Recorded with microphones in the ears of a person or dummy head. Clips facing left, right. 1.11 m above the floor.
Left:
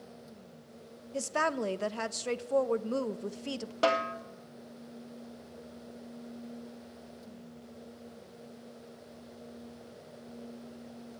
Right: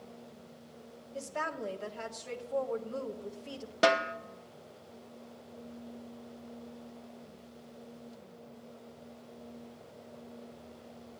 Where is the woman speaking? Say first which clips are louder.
Left 6 dB; 75° left (ahead or behind), 0.6 m.